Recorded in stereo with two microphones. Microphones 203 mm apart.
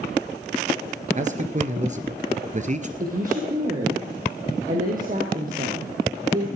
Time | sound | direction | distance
1.2 | a man speaking | 40° right (ahead or behind) | 1.8 m
3.0 | a woman speaking | 45° right (ahead or behind) | 3.5 m